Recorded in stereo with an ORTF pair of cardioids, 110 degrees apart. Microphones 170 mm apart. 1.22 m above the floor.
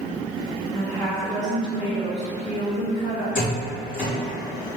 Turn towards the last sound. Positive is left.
turn(degrees=50)